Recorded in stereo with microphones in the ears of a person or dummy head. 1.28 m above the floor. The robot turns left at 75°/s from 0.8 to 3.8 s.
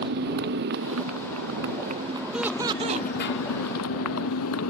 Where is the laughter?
5° right; by 3.1 s 65° right.